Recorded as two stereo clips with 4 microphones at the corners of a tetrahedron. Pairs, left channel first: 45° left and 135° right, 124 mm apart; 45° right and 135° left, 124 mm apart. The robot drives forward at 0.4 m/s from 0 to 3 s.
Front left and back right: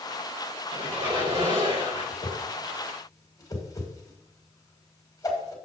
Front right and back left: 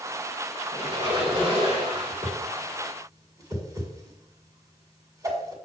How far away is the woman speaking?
I don't hear a woman speaking.